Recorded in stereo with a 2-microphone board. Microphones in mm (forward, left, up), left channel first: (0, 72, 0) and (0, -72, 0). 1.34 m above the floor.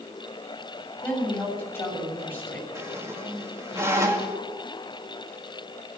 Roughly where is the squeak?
Centre.